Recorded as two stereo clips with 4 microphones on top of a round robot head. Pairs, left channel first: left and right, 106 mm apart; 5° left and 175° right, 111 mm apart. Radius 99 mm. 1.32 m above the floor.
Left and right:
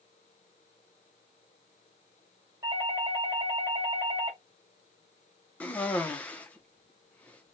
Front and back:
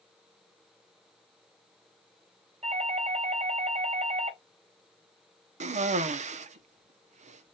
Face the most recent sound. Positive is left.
turn(degrees=170)